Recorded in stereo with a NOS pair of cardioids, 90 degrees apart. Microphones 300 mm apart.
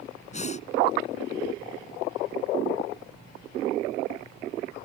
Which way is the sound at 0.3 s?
25° left.